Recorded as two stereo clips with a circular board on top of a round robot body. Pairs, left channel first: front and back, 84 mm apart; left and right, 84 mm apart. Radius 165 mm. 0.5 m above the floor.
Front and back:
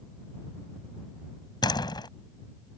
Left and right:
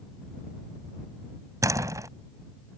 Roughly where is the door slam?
Ahead right.